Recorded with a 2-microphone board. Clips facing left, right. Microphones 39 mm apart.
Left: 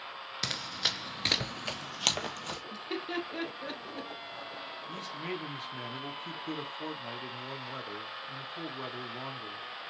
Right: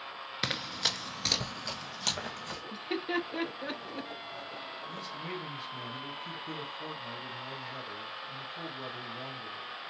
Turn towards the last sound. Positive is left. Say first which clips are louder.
# left 3 dB
turn(degrees=45)  # may be behind; listen again after turning